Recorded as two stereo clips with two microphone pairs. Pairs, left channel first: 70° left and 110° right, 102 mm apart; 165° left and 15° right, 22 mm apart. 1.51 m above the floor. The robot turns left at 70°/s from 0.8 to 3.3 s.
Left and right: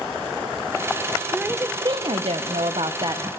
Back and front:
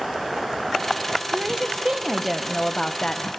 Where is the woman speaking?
25° right, 0.8 m; by 3.3 s 165° right, 0.8 m.